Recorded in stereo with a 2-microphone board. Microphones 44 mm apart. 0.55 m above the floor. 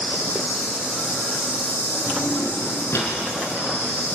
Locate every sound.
0.0 s an insect: 60° left (ahead or behind), 10 m
2.1 s a drawer: 70° left (ahead or behind), 5 m